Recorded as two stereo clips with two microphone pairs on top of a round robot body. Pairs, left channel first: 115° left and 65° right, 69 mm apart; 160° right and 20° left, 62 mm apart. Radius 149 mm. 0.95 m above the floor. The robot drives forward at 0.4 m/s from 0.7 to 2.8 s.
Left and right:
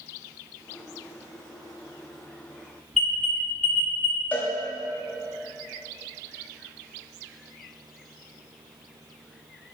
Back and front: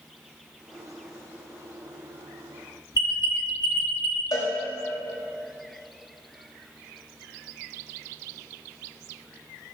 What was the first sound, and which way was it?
An alarm, 160° right.